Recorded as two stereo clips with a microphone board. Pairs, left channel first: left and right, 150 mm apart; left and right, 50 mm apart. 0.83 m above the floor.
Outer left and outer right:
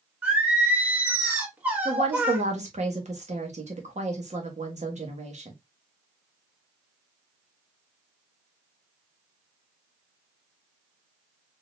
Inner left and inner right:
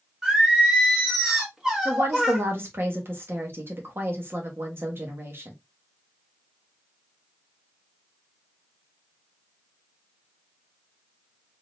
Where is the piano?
No piano in this recording.